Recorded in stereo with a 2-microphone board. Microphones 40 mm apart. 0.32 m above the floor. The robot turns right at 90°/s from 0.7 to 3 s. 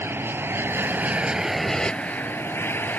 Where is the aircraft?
80° right; by 3.0 s 125° left.